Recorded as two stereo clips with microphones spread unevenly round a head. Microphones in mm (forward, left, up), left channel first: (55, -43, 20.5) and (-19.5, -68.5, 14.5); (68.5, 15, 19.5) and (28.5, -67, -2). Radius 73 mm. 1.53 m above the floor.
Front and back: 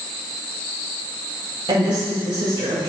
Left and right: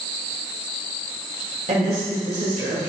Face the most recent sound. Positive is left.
turn(degrees=-145)